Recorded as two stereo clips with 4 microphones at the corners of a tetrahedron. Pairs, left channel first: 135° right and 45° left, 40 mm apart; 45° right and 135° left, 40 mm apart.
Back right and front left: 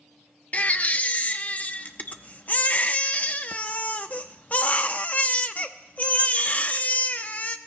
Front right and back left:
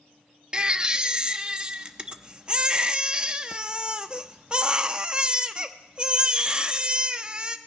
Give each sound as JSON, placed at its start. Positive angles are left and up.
{"t": 0.5, "sound": "a baby crying", "azimuth_deg": -165, "distance_m": 0.6}